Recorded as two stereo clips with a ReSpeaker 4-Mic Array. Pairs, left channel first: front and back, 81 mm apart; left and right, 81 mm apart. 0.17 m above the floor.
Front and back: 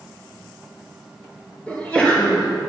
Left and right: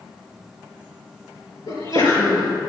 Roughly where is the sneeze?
Left.